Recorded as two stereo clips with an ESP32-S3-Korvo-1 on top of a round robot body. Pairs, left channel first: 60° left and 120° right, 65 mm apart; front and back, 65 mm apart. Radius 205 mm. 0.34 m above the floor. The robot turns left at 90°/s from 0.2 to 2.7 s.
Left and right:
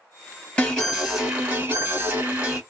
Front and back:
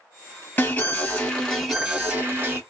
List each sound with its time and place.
0.6 s an alarm: 10° left, 1.9 m; by 2.6 s 175° right, 1.9 m